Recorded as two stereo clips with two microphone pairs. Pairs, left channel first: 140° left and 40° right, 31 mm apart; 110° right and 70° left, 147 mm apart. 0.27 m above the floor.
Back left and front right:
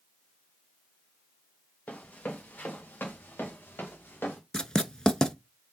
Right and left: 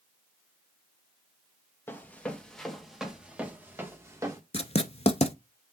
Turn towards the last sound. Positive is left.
turn(degrees=-155)